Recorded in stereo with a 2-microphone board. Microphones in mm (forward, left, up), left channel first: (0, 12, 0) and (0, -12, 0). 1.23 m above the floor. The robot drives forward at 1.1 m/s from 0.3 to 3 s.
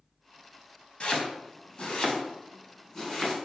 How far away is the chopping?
About 1.4 m.